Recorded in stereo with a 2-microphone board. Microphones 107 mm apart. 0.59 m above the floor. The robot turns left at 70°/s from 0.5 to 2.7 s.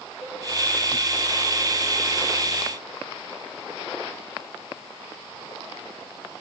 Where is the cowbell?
40° left (ahead or behind), 8.5 m.